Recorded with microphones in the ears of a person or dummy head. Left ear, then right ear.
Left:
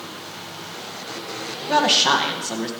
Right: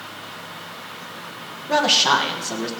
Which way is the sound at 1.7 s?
5° right (ahead or behind).